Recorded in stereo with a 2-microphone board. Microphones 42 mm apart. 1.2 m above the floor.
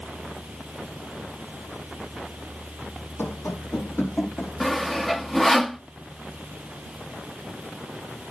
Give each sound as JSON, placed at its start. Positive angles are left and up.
{"t": 3.2, "sound": "running footsteps", "side_deg": 60, "distance_m": 3.5}
{"t": 4.6, "sound": "sawing", "side_deg": 5, "distance_m": 0.7}